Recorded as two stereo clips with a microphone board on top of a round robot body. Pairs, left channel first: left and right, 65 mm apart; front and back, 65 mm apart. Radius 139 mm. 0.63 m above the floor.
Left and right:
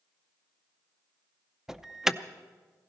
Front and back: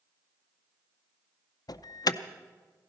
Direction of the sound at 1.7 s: 5° right.